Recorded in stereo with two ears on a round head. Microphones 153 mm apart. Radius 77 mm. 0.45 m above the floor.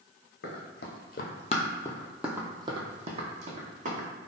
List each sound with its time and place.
0.4 s running footsteps: 65° left (ahead or behind), 1.0 m; by 4.1 s 50° right (ahead or behind), 1.4 m